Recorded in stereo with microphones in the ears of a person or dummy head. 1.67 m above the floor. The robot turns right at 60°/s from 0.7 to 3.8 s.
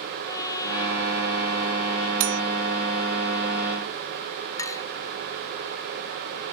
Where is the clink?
10° left (ahead or behind).